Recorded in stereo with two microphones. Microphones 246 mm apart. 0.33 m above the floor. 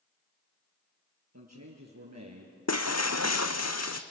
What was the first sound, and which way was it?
A man speaking, 80° right.